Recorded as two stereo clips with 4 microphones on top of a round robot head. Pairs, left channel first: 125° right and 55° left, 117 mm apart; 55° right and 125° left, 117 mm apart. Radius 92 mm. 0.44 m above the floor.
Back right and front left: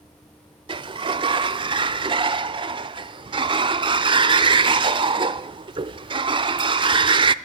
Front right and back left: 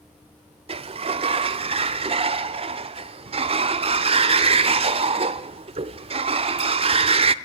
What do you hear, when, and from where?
0.7 s a sliding door: 95° left, 0.7 m